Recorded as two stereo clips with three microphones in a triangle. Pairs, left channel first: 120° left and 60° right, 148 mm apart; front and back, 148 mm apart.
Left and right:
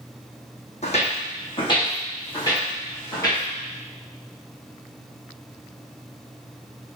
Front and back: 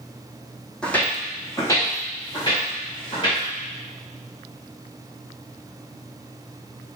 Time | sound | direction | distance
0.8 | footsteps | 85° left | 1.5 m